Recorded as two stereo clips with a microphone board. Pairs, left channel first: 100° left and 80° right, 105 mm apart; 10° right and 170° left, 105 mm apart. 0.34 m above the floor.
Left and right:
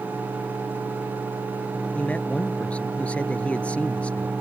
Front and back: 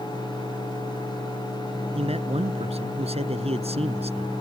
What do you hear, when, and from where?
1.9 s a man speaking: straight behind